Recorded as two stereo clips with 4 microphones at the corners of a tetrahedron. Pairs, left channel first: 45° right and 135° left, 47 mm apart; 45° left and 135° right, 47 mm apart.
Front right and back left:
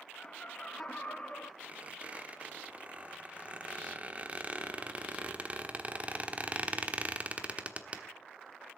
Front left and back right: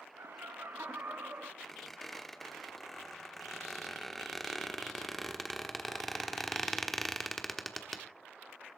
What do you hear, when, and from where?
0.2 s laughter: 115° right, 1.7 m; by 1.5 s 100° right, 2.5 m
1.6 s a squeak: 130° left, 1.2 m